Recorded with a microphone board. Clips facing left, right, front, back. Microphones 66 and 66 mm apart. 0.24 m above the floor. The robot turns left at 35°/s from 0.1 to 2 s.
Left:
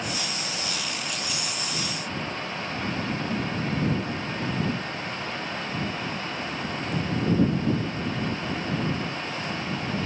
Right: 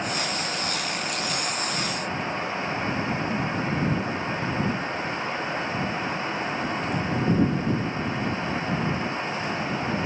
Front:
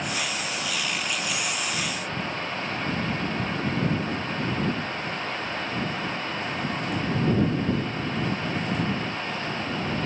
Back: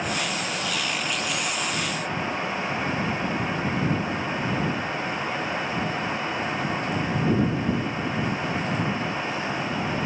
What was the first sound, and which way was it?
Only background noise.